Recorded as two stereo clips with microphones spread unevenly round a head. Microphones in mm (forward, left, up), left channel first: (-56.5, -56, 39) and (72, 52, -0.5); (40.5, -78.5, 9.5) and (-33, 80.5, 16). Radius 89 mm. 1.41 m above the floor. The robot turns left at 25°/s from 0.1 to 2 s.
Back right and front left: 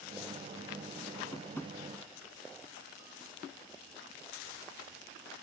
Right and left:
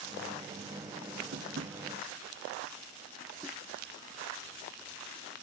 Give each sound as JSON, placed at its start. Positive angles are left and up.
{"t": 1.3, "sound": "tapping", "azimuth_deg": 150}